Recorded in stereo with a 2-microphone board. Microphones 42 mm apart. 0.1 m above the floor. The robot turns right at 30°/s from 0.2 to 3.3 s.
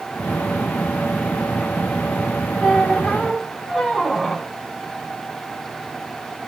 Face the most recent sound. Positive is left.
turn(degrees=-10)  # may be behind; listen again after turning